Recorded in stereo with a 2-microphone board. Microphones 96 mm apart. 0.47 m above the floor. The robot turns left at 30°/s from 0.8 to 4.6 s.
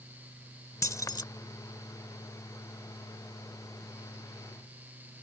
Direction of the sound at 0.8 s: 30° left (ahead or behind).